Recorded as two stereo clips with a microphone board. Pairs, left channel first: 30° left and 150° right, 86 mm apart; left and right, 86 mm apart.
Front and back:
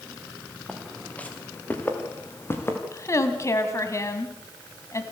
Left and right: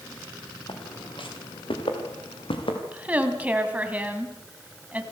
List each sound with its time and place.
0.7 s footsteps: 110° left, 3.5 m; by 2.8 s 90° left, 4.5 m
2.9 s a woman speaking: 20° right, 2 m